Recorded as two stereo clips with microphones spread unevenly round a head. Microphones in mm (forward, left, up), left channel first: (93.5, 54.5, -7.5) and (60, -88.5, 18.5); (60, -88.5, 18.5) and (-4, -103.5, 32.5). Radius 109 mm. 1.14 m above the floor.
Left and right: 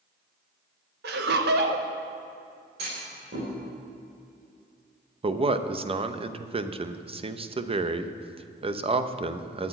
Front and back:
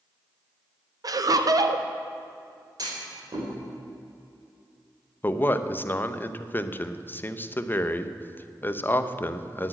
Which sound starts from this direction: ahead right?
A man speaking, at 5.2 s.